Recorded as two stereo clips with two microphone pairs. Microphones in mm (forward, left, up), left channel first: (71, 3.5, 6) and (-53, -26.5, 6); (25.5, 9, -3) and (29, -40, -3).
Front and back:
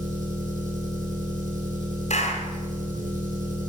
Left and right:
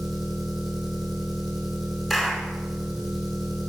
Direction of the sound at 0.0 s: 175° right.